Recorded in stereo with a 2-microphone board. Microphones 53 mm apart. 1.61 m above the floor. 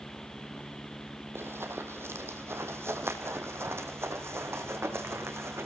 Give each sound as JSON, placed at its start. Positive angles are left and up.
{"t": 1.4, "sound": "running footsteps", "side_deg": -50, "distance_m": 2.5}